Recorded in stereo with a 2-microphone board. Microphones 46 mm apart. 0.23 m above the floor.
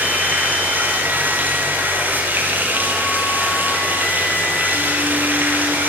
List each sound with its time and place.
0.0 s running water: 40° right (ahead or behind), 6 m